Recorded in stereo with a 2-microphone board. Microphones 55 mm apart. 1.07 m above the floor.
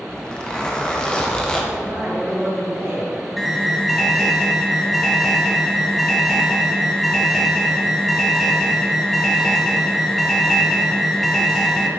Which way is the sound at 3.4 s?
Centre (ahead or behind).